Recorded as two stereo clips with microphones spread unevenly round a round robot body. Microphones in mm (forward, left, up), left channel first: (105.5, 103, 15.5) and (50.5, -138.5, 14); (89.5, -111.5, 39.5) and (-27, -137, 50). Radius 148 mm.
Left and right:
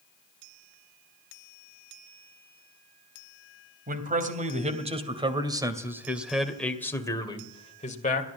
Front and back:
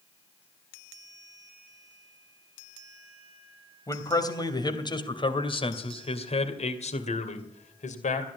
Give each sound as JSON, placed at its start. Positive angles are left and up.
{"t": 3.9, "sound": "a man speaking", "azimuth_deg": -50, "distance_m": 3.0}